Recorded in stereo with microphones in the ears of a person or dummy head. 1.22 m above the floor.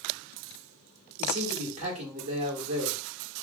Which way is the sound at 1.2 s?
40° right (ahead or behind).